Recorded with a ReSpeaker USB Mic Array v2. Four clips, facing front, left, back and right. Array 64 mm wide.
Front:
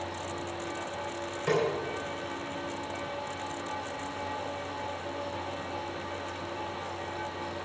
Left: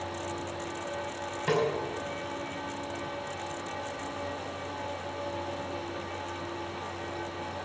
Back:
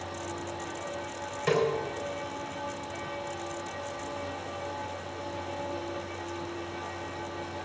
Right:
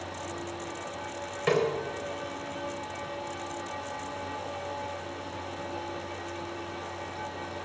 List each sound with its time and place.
1.5 s a snare drum: 105° right, 4 m